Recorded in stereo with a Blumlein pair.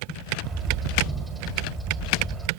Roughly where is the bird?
Ahead.